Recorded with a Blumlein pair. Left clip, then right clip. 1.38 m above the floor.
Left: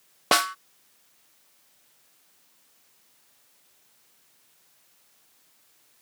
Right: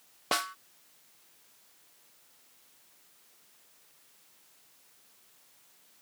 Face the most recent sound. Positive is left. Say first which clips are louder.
# left 9 dB
turn(degrees=25)